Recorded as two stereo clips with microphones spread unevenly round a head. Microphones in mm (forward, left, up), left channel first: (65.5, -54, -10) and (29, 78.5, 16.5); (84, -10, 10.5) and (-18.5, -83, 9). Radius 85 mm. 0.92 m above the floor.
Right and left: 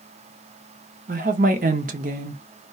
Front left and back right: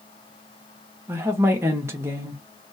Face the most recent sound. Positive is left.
turn(degrees=145)